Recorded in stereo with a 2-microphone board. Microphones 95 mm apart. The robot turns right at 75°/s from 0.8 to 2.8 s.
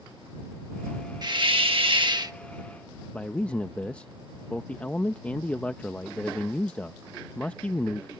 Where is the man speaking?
15° left (ahead or behind).